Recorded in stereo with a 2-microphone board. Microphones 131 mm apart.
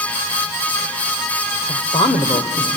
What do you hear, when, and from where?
1.7 s a woman speaking: 50° left (ahead or behind), 1.3 m